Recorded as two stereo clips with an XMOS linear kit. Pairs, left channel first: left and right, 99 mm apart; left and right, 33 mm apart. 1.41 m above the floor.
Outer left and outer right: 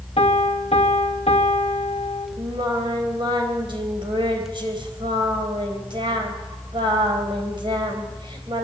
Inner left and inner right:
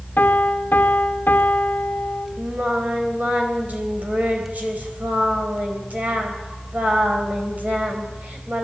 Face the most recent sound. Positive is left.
turn(degrees=-50)  # may be behind; listen again after turning